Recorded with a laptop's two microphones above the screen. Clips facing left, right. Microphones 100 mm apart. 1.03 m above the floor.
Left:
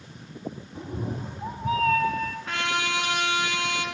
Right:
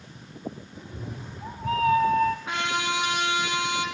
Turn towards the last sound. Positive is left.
turn(degrees=-15)  # may be behind; listen again after turning